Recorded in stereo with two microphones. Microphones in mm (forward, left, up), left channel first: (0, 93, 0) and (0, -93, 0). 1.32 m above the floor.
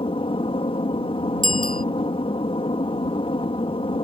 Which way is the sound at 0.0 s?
30° left (ahead or behind).